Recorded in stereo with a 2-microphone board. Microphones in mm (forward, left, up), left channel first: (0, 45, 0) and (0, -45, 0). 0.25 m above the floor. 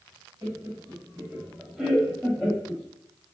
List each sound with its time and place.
0.4 s laughter: 35° right (ahead or behind), 1.3 m; by 2.8 s 20° left (ahead or behind), 1.1 m